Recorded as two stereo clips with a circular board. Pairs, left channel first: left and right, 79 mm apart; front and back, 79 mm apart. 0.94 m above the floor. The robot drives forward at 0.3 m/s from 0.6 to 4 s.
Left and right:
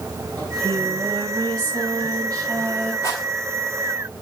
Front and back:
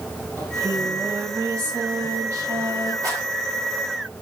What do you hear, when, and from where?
0.4 s singing: 130° right, 3.5 m; by 2.9 s 135° right, 4 m
3.0 s a rattle: 135° left, 2.5 m; by 3.2 s 140° left, 2.5 m